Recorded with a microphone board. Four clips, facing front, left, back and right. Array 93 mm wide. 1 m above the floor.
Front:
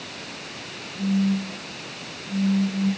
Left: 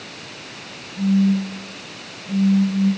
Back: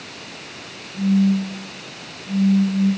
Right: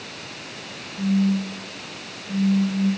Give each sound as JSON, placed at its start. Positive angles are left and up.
{"t": 0.9, "sound": "a phone buzzing", "azimuth_deg": 125, "distance_m": 8.0}